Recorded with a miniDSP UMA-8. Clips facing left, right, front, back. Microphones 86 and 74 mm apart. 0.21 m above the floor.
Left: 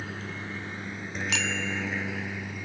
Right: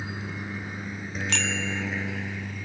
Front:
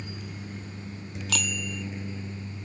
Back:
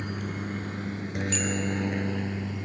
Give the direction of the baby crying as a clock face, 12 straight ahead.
No baby crying in this recording.